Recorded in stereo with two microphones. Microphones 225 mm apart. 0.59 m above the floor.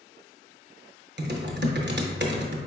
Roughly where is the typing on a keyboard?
Right.